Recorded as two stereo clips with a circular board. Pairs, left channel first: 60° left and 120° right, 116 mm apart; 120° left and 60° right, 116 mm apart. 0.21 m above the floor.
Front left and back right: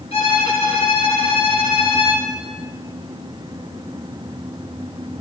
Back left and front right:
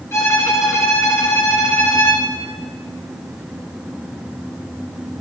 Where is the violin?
55° left, 2.5 m.